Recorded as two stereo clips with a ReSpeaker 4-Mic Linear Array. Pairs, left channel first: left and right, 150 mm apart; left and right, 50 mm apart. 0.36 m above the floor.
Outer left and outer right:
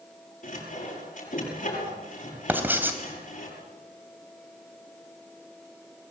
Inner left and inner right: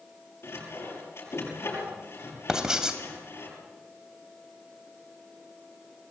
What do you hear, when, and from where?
0.4 s sawing: 60° left (ahead or behind), 7.5 m
2.5 s writing: 15° right (ahead or behind), 2.5 m